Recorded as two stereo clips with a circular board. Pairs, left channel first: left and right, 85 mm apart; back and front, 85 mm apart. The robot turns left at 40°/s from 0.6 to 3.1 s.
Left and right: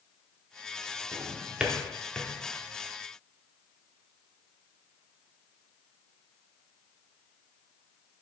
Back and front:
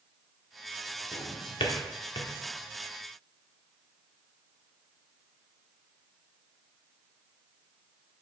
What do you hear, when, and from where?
1.1 s a drawer: 145° right, 0.8 m; by 2.3 s 165° left, 0.8 m